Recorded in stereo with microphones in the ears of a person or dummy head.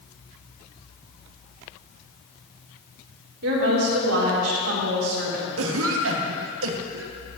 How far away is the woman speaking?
About 2 m.